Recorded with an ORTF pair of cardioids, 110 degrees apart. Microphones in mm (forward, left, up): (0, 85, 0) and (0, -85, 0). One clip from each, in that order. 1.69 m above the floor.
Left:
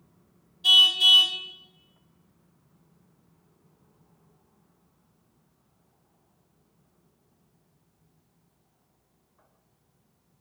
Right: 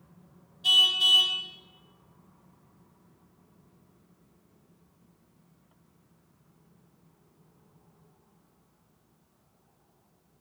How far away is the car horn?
About 3.5 m.